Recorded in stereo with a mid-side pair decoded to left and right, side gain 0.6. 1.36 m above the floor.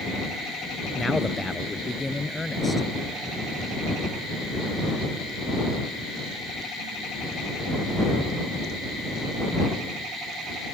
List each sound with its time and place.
0.9 s a man speaking: 10° left